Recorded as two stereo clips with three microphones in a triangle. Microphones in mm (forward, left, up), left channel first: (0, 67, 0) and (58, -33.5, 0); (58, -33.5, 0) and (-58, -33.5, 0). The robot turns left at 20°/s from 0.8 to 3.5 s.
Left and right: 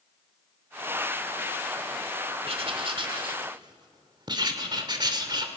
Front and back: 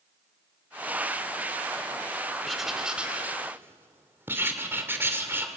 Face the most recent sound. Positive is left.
turn(degrees=-110)